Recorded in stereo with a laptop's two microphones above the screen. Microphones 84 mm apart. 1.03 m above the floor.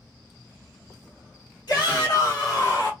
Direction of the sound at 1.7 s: 60° left (ahead or behind).